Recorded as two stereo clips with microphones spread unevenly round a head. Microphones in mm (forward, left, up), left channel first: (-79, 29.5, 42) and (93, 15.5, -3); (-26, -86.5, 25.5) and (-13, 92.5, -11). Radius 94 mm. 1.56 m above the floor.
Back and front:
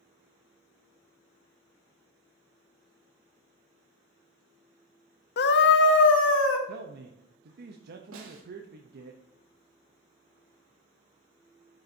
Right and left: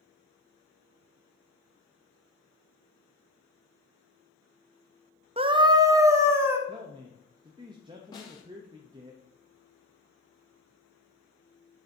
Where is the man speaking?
20° left, 0.7 m.